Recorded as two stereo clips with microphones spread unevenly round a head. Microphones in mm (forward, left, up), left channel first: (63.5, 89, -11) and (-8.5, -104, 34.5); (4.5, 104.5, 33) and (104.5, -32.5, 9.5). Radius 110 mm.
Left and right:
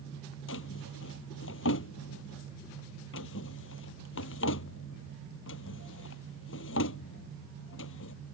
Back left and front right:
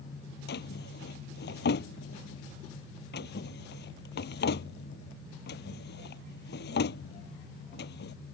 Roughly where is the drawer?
Left.